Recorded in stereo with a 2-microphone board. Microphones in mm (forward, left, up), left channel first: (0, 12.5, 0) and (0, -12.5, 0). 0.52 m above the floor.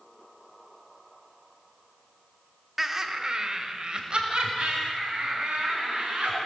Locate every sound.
2.8 s laughter: 10° right (ahead or behind), 1.0 m; by 6.4 s 50° right (ahead or behind), 6 m